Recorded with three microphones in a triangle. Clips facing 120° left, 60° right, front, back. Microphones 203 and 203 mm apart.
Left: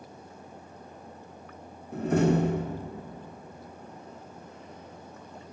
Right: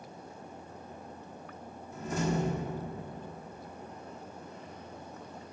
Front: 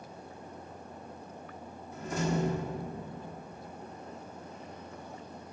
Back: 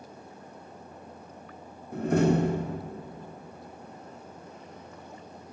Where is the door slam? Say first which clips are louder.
Left 8 dB, back 9 dB; 150° left, 1.4 m.